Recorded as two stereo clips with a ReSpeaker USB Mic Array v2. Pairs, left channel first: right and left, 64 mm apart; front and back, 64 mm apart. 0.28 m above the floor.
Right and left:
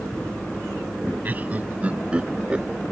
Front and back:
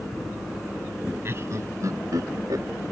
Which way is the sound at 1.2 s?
145° left.